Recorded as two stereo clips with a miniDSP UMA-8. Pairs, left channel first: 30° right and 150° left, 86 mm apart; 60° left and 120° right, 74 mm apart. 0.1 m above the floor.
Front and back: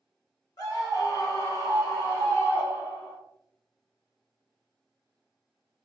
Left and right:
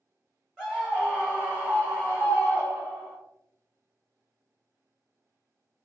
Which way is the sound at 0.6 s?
35° right.